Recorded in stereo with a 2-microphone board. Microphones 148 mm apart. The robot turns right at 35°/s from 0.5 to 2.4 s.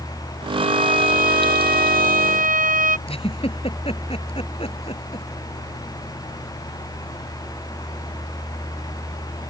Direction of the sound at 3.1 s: 40° left (ahead or behind).